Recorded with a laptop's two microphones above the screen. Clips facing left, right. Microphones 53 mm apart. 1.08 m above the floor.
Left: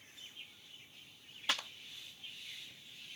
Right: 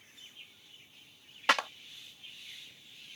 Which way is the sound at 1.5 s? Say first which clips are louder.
Right 10 dB; 65° right (ahead or behind).